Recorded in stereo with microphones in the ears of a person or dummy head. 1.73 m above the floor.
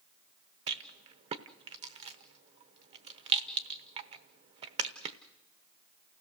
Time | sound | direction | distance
0.7 | a rattle | 35° right (ahead or behind) | 1.0 m